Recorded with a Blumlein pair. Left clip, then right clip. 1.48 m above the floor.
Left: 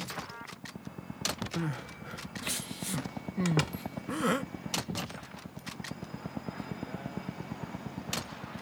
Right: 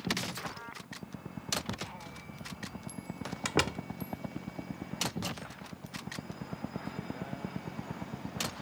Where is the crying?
45° left.